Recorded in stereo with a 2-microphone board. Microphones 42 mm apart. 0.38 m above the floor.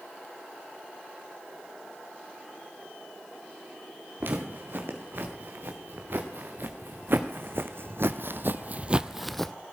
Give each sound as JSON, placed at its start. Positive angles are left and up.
{"t": 4.2, "sound": "footsteps", "side_deg": -55, "distance_m": 4.0}